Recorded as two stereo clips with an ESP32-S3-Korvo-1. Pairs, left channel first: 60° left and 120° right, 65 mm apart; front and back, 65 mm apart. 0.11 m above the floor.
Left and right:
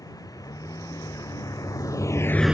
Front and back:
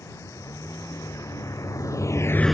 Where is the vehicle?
35° left; by 2.5 s 105° right.